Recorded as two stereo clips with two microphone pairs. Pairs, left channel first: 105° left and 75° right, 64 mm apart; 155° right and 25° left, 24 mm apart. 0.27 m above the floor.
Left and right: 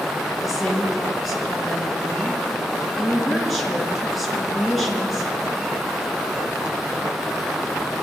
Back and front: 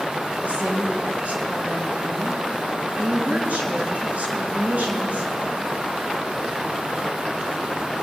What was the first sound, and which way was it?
A woman speaking, 15° left.